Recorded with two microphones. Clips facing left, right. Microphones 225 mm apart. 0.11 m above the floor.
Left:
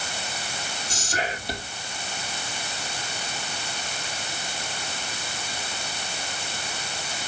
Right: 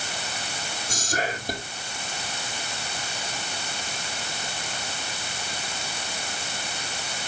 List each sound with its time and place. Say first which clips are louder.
0.9 s whispering: right 2 dB; 45° right (ahead or behind), 2.5 m